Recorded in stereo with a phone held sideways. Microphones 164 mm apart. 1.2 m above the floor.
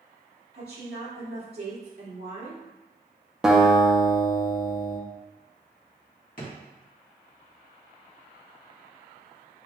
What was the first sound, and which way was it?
A woman speaking, 65° right (ahead or behind).